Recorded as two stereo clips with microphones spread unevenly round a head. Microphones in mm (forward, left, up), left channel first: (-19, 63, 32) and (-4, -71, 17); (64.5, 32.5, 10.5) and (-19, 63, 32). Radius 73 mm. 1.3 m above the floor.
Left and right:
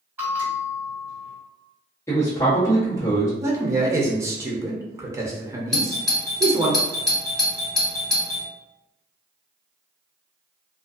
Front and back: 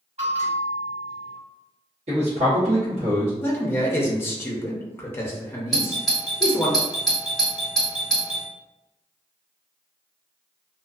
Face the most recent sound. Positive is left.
turn(degrees=-5)